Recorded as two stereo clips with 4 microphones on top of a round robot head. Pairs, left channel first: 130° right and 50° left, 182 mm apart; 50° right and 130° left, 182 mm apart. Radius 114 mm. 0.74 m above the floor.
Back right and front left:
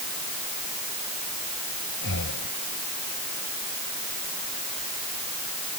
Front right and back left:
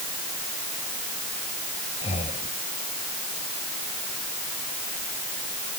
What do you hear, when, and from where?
2.0 s breathing: 105° right